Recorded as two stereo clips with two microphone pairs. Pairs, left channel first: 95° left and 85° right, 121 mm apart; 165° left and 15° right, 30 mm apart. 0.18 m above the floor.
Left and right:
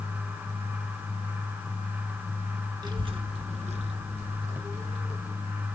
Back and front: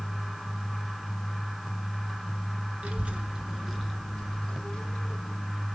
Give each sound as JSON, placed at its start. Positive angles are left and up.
{"t": 2.8, "sound": "a child speaking", "azimuth_deg": -40, "distance_m": 1.3}